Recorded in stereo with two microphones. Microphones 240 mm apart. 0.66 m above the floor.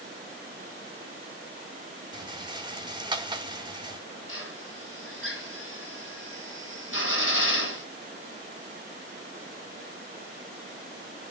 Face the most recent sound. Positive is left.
turn(degrees=60)  # may be behind; listen again after turning